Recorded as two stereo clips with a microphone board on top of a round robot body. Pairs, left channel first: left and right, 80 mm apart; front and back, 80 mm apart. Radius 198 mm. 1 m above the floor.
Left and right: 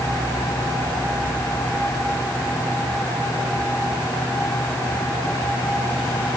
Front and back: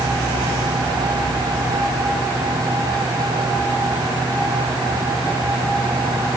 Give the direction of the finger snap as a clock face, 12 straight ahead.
No finger snap in this recording.